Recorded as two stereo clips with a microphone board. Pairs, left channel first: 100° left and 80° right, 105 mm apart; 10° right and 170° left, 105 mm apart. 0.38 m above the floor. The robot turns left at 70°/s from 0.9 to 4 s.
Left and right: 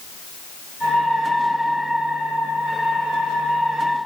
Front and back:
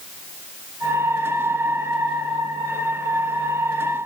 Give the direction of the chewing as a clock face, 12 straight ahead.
No chewing in this recording.